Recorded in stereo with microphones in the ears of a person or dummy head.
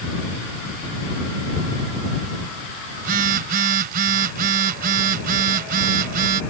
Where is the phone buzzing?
55° right (ahead or behind).